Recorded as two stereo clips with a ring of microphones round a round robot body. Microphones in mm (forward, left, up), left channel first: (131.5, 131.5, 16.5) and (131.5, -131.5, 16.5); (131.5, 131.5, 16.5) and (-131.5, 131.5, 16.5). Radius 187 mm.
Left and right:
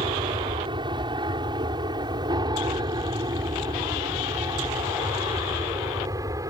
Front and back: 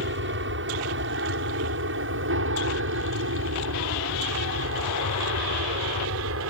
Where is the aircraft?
160° right; by 6.5 s 165° right.